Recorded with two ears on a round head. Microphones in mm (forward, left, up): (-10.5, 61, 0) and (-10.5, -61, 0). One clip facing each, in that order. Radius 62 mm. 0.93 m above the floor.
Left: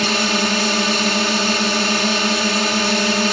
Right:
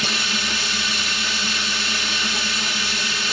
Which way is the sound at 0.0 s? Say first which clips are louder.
Left 9 dB; 45° left (ahead or behind).